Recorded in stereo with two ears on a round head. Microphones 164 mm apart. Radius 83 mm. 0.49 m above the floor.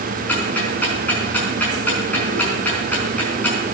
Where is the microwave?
I don't hear a microwave.